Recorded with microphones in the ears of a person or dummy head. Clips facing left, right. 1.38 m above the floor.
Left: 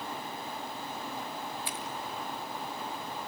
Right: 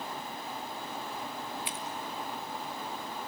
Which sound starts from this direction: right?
Scissors, at 1.6 s.